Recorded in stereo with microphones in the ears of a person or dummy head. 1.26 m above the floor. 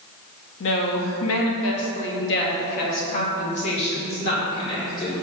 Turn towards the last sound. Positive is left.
turn(degrees=20)  # may be behind; listen again after turning